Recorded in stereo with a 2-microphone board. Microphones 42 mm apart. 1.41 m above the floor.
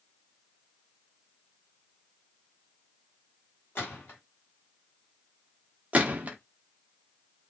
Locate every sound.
3.8 s a gunshot: 60° left (ahead or behind), 1.9 m
5.9 s a gunshot: 35° right (ahead or behind), 0.5 m